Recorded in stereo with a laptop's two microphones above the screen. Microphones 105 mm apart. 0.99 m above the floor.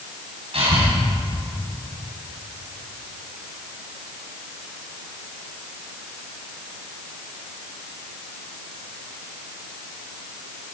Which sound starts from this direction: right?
Breathing, at 0.5 s.